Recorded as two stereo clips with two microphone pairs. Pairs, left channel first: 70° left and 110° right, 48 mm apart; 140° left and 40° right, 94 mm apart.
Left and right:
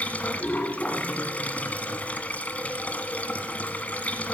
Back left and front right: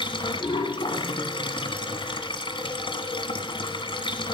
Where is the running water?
125° left, 1.4 m.